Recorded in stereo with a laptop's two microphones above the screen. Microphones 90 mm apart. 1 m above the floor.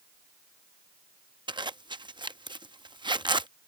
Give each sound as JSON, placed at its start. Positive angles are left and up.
{"t": 1.5, "sound": "a zipper", "side_deg": -55}